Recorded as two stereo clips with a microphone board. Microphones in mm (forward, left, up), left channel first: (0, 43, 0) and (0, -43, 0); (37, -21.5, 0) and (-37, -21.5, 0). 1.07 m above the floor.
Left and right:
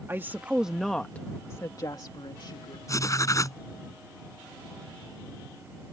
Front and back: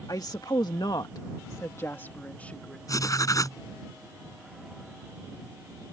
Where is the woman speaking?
30° right; by 2.8 s 75° left.